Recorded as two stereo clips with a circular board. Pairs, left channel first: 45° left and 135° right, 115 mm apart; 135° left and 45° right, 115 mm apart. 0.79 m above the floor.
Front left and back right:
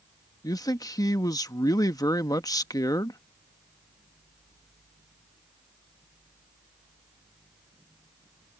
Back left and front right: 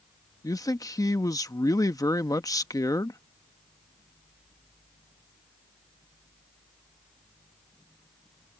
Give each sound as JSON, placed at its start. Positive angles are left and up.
{"t": 0.4, "sound": "a man speaking", "azimuth_deg": 90}